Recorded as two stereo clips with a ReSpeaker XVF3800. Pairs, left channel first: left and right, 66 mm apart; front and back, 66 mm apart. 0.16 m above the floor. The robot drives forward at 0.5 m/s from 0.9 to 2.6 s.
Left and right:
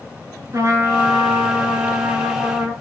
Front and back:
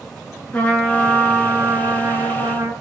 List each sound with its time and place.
0.5 s a trumpet: 65° right, 0.6 m; by 2.7 s 145° right, 0.8 m